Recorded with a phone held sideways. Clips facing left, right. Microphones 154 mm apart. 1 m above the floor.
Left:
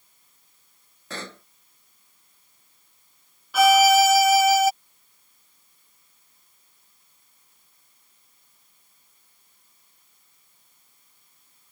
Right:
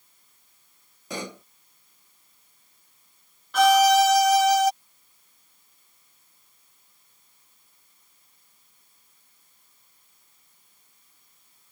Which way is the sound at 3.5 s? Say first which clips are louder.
Left 1 dB; 5° left (ahead or behind).